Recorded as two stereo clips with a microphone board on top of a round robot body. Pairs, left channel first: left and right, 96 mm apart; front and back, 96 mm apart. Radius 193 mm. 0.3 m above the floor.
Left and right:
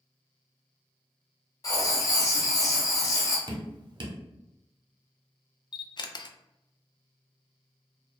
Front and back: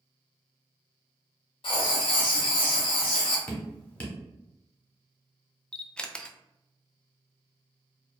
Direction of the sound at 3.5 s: 70° right.